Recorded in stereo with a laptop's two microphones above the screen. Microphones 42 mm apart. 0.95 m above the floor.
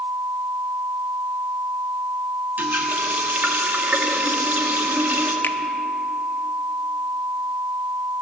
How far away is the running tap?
About 1.2 m.